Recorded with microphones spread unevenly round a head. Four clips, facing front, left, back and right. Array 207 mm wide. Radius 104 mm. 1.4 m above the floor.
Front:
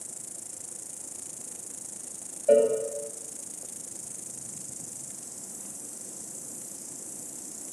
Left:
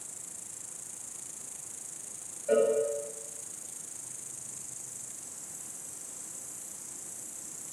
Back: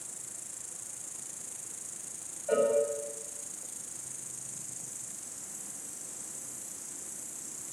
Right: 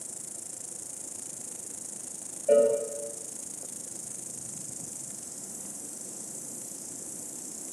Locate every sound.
0.0 s an insect: 60° right, 1.0 m
2.5 s a cowbell: 25° right, 9 m